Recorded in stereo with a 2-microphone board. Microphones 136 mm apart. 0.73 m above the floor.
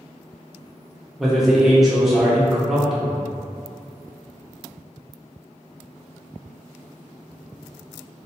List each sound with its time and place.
1.2 s a man speaking: centre (ahead or behind), 0.6 m